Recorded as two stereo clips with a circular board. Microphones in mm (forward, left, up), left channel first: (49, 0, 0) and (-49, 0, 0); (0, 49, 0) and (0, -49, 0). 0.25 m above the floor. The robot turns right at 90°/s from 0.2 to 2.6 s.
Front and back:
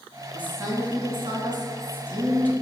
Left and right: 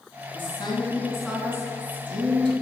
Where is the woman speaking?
100° left, 2.5 m; by 2.5 s 65° right, 2.5 m.